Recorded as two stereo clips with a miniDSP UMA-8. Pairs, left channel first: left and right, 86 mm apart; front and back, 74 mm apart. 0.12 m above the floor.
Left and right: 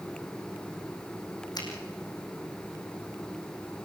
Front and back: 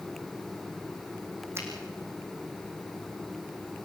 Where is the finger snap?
125° left, 4.5 m.